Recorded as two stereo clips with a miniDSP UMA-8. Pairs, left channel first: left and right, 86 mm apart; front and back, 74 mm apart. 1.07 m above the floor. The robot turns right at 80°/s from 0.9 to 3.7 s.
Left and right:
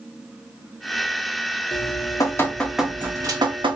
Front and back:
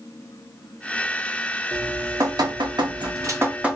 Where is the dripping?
100° left, 0.9 m; by 3.8 s 100° right, 0.9 m.